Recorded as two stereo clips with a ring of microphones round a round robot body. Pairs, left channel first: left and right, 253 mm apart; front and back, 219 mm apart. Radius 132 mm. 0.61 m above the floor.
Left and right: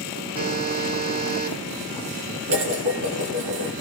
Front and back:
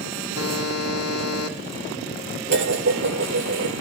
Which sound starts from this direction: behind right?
Dishes clattering, at 2.5 s.